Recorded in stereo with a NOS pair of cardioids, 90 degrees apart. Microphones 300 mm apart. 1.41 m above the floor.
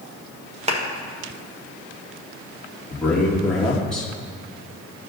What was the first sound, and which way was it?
A clap, 20° right.